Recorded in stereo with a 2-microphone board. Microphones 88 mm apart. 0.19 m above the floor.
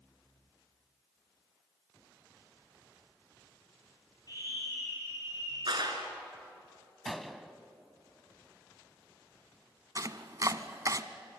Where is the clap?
60° right (ahead or behind), 3 m.